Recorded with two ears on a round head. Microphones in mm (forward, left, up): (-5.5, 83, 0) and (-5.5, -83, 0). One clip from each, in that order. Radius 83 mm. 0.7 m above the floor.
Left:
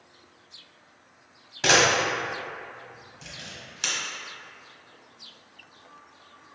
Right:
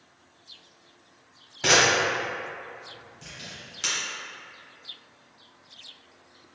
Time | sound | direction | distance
1.6 | a camera shutter | 15° left (ahead or behind) | 0.9 m